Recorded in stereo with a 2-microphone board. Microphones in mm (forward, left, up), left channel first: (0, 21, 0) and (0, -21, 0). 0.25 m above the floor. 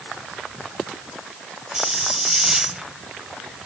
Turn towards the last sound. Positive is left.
turn(degrees=-15)  # may be behind; listen again after turning